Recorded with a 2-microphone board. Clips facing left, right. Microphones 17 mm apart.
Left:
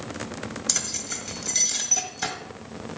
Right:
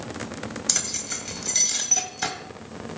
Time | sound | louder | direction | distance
0.7 | keys jangling | right 1 dB | 10° right (ahead or behind) | 1.0 m